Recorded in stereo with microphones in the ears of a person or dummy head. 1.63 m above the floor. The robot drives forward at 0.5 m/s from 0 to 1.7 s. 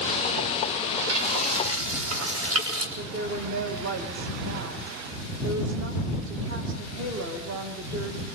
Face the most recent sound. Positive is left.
turn(degrees=-75)  # may be behind; listen again after turning